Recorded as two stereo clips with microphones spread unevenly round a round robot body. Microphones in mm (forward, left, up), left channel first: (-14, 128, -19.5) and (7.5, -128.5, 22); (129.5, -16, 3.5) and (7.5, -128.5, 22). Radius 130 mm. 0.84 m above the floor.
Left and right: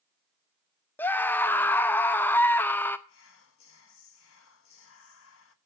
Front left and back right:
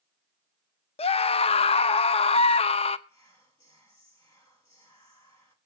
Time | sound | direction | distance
1.0 | a scream | 25° left | 0.5 m
3.1 | whispering | 110° left | 1.0 m